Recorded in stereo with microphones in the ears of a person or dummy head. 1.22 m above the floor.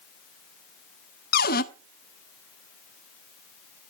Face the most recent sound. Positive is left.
turn(degrees=55)  # may be behind; listen again after turning